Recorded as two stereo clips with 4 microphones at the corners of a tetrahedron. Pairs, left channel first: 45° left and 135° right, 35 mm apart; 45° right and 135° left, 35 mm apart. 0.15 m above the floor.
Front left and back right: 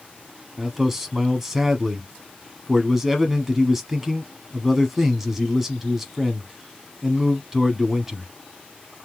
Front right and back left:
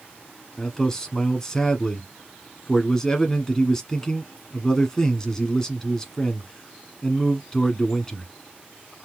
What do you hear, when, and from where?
0.6 s a man speaking: 70° right, 1.0 m